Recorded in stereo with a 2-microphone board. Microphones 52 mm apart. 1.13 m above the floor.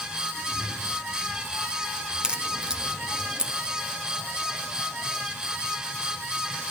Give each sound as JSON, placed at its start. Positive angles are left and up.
{"t": 0.3, "sound": "a cat meowing", "side_deg": 5, "distance_m": 6.5}
{"t": 2.2, "sound": "a crack", "side_deg": -15, "distance_m": 1.3}